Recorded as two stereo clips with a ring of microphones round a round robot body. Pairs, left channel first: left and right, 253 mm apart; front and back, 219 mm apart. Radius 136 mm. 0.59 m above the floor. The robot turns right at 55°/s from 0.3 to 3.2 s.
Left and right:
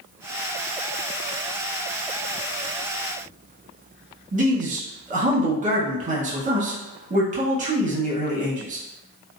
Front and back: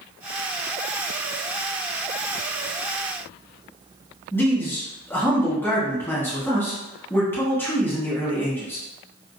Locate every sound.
4.3 s a man speaking: 70° right, 1.0 m